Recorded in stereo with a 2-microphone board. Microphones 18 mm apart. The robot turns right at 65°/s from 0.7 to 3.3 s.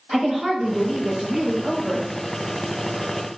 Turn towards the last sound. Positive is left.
turn(degrees=45)